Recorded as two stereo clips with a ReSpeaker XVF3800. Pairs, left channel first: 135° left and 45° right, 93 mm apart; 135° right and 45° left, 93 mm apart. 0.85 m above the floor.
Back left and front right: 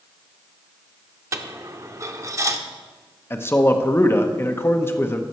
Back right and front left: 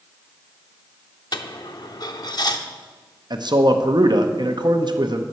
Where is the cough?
I don't hear a cough.